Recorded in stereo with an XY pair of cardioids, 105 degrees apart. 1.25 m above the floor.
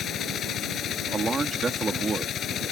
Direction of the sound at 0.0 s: 65° left.